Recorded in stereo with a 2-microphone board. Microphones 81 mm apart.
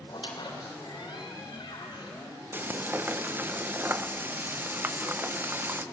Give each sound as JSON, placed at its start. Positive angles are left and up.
{"t": 0.1, "sound": "a squeak", "side_deg": 75, "distance_m": 3.0}
{"t": 2.5, "sound": "frying", "side_deg": -25, "distance_m": 0.5}